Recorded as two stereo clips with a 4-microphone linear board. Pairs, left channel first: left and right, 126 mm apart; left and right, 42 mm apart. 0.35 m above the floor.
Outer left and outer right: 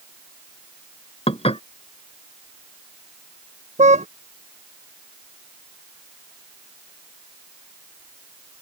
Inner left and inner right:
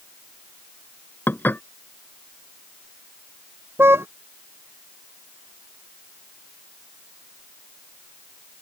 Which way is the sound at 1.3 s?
60° left (ahead or behind).